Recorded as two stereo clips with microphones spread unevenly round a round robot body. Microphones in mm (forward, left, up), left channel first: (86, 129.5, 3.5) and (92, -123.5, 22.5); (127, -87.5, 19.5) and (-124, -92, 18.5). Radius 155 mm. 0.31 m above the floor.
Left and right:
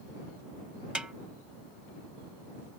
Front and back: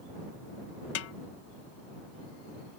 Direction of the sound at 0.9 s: Straight ahead.